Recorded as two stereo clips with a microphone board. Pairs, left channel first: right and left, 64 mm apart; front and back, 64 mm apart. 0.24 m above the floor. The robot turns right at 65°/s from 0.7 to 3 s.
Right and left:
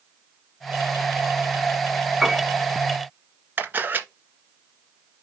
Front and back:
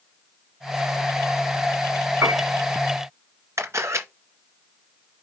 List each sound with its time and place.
2.2 s a piano: 170° left, 1.1 m; by 2.5 s 175° right, 1.1 m
3.6 s a camera shutter: 145° left, 1.9 m